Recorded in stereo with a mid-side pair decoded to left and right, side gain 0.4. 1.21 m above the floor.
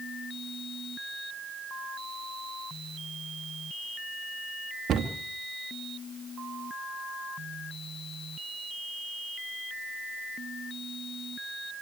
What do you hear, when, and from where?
4.9 s a cupboard door: 65° right, 2 m